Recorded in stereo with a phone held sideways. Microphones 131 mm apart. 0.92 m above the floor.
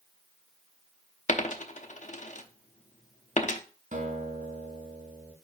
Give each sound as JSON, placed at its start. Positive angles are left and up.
{"t": 1.3, "sound": "a dropped coin", "side_deg": 70, "distance_m": 0.8}
{"t": 3.9, "sound": "a guitar", "side_deg": -80, "distance_m": 3.0}